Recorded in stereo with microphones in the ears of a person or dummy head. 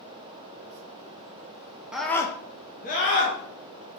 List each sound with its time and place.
1.9 s a scream: 5° right (ahead or behind), 0.6 m; by 3.4 s 50° left (ahead or behind), 1.0 m